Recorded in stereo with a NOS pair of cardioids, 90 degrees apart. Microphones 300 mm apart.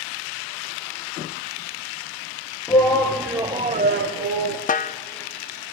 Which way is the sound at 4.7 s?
30° left.